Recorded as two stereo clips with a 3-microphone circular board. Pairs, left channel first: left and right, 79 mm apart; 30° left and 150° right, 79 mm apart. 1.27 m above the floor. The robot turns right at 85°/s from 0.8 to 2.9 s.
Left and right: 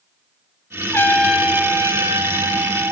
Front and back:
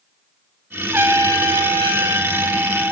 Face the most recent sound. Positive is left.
turn(degrees=-45)